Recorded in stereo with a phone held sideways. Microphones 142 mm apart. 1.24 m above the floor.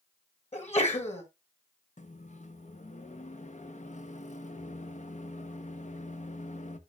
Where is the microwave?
60° left (ahead or behind), 0.7 m.